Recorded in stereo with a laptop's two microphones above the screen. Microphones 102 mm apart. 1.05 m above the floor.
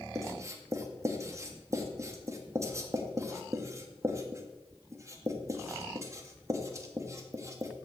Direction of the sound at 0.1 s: 30° right (ahead or behind).